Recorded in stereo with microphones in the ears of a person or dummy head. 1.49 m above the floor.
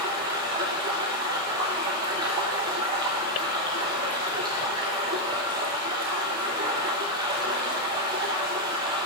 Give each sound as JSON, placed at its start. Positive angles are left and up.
{"t": 0.0, "sound": "running water", "side_deg": -25, "distance_m": 0.8}